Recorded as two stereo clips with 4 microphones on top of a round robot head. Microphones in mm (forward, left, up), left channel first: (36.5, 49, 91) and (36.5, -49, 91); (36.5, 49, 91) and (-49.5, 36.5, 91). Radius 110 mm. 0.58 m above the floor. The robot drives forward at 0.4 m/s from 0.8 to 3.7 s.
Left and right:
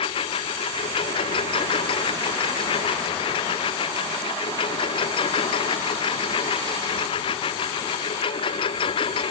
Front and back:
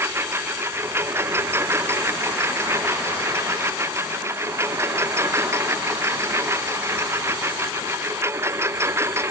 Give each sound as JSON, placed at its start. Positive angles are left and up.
{"t": 0.0, "sound": "a lawn mower", "azimuth_deg": 125}